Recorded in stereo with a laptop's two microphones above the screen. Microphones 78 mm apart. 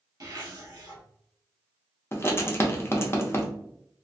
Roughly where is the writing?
Left.